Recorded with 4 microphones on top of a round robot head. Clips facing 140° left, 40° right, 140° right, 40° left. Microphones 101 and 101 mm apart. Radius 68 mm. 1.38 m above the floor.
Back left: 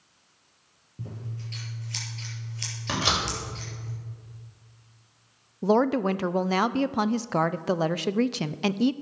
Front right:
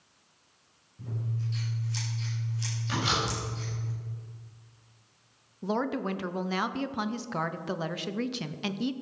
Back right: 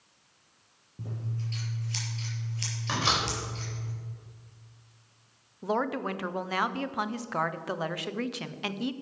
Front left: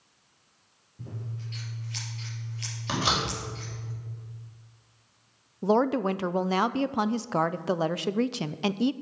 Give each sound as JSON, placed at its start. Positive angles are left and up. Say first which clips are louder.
{"t": 1.0, "sound": "scissors", "louder": "front right 3 dB, back right 2 dB", "azimuth_deg": 165, "distance_m": 4.5}
{"t": 2.9, "sound": "a door slam", "louder": "back left 2 dB, front left 1 dB", "azimuth_deg": 120, "distance_m": 4.5}
{"t": 5.6, "sound": "a woman speaking", "louder": "back left 8 dB, front left 6 dB", "azimuth_deg": 100, "distance_m": 0.5}